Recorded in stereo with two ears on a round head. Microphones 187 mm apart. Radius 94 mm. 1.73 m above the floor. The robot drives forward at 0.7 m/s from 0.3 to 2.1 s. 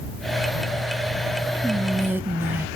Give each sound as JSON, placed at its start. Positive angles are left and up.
{"t": 1.6, "sound": "whispering", "side_deg": -5, "distance_m": 1.0}